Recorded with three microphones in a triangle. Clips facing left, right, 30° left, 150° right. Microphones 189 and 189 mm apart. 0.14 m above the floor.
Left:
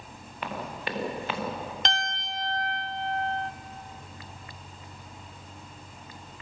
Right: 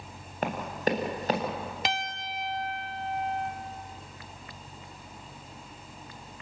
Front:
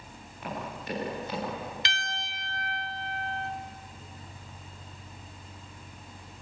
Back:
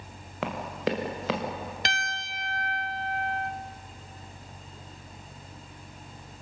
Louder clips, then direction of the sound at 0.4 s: Right 6 dB, back 7 dB; 140° right.